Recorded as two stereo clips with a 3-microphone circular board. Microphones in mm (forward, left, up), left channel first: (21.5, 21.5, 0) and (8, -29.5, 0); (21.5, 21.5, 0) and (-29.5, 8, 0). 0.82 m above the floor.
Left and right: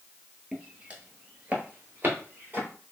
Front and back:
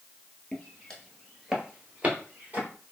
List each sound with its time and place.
0.5 s footsteps: 40° right, 0.9 m; by 2.7 s 140° right, 1.1 m